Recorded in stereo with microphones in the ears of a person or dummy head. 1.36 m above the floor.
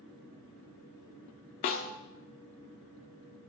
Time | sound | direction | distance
1.6 | a snare drum | 35° left (ahead or behind) | 1.0 m